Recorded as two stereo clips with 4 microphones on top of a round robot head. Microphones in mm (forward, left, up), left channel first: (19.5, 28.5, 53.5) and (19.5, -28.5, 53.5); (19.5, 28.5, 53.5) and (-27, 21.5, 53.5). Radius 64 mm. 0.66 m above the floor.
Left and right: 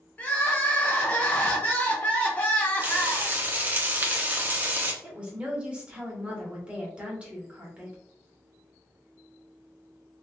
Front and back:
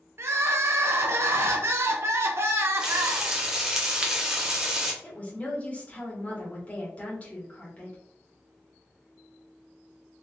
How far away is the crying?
About 0.6 m.